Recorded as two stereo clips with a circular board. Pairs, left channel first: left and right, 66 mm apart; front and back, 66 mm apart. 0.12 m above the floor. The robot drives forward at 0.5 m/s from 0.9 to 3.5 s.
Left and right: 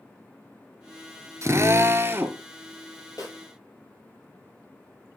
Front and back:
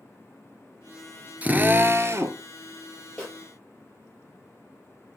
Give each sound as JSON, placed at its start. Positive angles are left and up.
{"t": 1.4, "sound": "a drill", "azimuth_deg": -120, "distance_m": 0.7}
{"t": 3.2, "sound": "a snare drum", "azimuth_deg": 70, "distance_m": 3.5}